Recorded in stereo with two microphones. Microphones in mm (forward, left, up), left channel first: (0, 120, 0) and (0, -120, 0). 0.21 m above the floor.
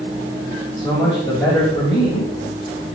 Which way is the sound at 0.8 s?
15° left (ahead or behind).